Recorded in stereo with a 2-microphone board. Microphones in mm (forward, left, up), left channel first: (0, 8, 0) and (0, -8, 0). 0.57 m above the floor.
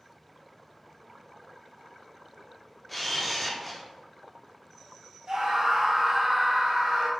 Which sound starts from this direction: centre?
A camera shutter, at 2.9 s.